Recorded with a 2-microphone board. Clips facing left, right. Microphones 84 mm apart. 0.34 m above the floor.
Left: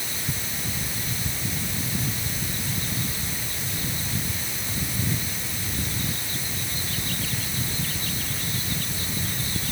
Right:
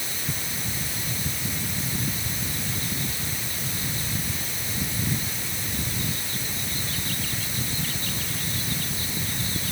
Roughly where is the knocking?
I don't hear knocking.